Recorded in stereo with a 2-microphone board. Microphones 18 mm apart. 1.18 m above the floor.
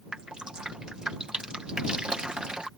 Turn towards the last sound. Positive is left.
turn(degrees=-55)  # may be behind; listen again after turning